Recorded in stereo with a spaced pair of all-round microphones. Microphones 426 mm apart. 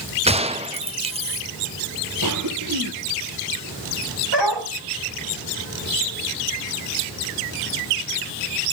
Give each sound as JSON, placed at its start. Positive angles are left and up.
{"t": 0.3, "sound": "a gunshot", "side_deg": -15, "distance_m": 0.9}
{"t": 2.2, "sound": "a cough", "side_deg": -45, "distance_m": 2.0}
{"t": 4.3, "sound": "a dog barking", "side_deg": -75, "distance_m": 4.5}